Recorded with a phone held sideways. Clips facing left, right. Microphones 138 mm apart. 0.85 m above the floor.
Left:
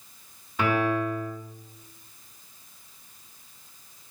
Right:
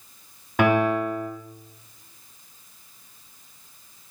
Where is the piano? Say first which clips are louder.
Right 5 dB; 65° right (ahead or behind), 5.5 m.